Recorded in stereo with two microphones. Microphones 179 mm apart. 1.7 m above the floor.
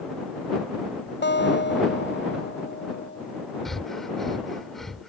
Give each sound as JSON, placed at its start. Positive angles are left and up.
{"t": 1.2, "sound": "a guitar", "side_deg": 85}
{"t": 3.6, "sound": "breathing", "side_deg": 0}